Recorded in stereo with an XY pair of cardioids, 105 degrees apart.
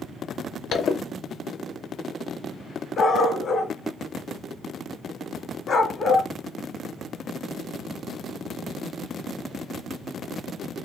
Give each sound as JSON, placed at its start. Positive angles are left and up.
{"t": 0.7, "sound": "a zipper", "azimuth_deg": 55, "distance_m": 0.8}
{"t": 3.0, "sound": "a dog barking", "azimuth_deg": 50, "distance_m": 1.8}